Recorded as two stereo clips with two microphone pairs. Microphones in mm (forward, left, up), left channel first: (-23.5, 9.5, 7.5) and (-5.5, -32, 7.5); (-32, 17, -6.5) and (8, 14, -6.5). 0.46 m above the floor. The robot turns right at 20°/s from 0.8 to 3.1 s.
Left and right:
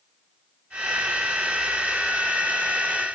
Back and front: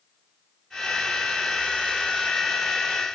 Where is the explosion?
No explosion in this recording.